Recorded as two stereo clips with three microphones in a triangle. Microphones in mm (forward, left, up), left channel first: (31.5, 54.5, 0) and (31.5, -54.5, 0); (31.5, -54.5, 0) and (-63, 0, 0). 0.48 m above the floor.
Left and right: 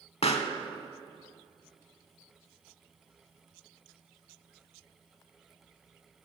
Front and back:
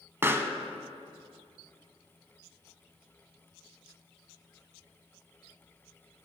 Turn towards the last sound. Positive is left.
turn(degrees=85)